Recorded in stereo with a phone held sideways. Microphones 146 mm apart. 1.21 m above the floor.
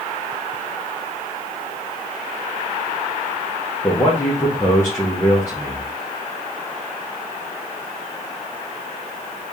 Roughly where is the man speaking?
Centre.